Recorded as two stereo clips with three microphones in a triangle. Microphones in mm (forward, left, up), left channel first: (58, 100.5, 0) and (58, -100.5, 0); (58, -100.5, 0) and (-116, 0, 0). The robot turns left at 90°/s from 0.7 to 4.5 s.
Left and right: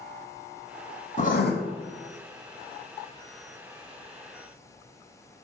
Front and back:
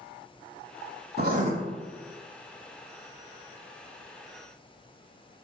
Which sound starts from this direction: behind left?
Writing, at 1.2 s.